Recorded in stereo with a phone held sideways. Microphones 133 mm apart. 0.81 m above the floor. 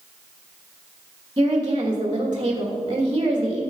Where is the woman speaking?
35° right (ahead or behind), 1.3 m.